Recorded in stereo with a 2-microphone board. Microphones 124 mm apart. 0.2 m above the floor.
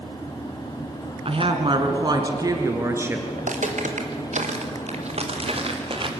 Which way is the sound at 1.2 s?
50° right (ahead or behind).